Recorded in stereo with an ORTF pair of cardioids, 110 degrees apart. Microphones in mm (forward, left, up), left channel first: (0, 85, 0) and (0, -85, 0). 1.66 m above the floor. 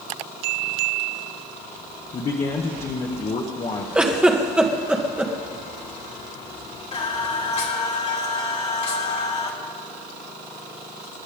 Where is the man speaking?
35° left, 1.7 m.